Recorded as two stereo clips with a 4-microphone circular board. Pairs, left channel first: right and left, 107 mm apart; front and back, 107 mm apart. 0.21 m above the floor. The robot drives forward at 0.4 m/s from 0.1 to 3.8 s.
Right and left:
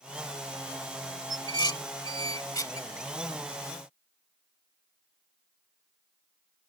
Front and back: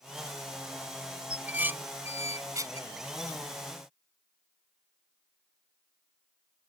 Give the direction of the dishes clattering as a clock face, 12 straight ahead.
4 o'clock.